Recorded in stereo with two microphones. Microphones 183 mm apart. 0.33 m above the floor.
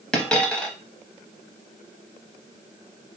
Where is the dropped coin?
5° left (ahead or behind), 0.7 m.